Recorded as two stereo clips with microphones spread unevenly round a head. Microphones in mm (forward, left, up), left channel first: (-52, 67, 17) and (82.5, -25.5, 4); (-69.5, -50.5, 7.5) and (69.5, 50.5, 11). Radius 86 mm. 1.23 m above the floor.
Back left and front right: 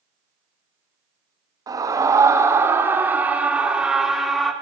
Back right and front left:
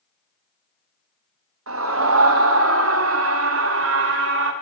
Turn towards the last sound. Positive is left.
turn(degrees=55)